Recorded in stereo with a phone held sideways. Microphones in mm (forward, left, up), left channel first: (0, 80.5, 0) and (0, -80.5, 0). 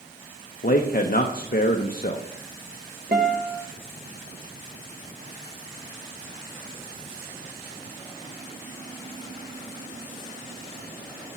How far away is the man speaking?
About 0.7 m.